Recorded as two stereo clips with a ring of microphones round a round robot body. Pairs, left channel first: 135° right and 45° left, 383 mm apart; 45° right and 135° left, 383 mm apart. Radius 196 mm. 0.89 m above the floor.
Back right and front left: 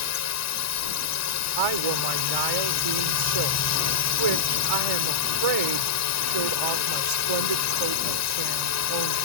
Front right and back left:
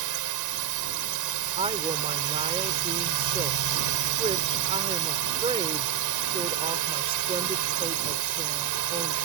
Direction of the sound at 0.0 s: 175° left.